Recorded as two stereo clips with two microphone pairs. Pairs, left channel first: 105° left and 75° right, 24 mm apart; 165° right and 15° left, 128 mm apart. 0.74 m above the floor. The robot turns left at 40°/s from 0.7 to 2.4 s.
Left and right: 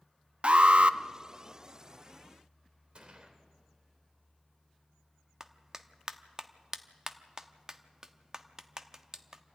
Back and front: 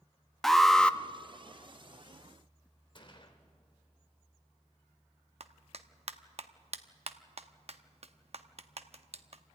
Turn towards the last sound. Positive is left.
turn(degrees=-10)